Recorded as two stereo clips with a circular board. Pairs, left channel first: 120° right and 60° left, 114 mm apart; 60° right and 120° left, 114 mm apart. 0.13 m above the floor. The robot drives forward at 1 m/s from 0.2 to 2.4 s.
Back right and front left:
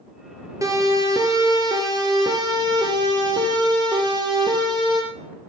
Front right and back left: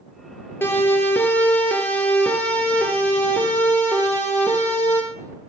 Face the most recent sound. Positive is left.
turn(degrees=15)